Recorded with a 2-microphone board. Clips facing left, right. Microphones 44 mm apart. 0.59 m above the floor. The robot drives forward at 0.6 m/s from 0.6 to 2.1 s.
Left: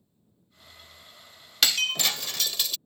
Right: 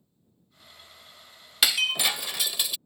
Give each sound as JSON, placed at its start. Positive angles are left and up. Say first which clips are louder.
{"t": 1.6, "sound": "breaking glass", "louder": "right 1 dB", "side_deg": -10}